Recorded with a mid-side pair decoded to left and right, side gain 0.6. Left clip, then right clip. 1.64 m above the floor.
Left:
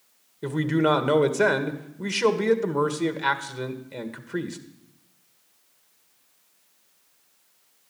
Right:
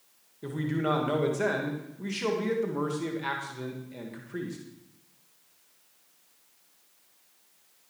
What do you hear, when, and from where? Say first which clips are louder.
0.4 s a man speaking: left 7 dB; 40° left, 1.7 m